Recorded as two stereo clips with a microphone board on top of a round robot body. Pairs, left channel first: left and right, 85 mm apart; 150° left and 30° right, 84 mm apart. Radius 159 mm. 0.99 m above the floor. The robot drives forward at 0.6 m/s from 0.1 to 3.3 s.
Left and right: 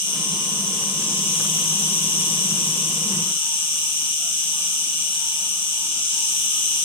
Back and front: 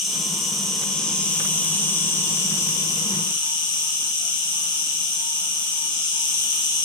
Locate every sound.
0.0 s an insect: 55° left, 2 m; by 6.8 s 110° left, 2.0 m